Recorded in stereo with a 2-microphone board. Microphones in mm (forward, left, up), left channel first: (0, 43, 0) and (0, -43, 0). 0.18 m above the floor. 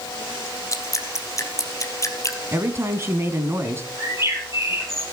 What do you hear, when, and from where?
0.7 s dripping: 35° left (ahead or behind), 2.5 m
2.5 s a woman speaking: 30° right (ahead or behind), 1.9 m
4.0 s a bird: 30° right (ahead or behind), 5 m